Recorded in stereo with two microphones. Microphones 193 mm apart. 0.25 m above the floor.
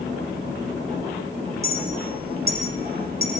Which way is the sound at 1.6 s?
55° right (ahead or behind).